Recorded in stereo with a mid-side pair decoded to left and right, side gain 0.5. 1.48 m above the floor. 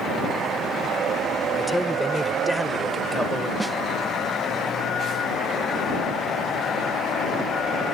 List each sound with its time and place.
1.6 s a man speaking: straight ahead; by 3.5 s 10° right
3.6 s a snare drum: 10° right